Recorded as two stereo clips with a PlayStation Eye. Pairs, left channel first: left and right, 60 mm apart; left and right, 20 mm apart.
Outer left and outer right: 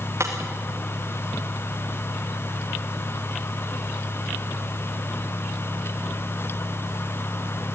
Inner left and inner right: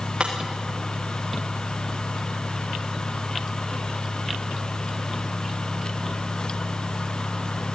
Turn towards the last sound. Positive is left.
turn(degrees=-55)  # may be behind; listen again after turning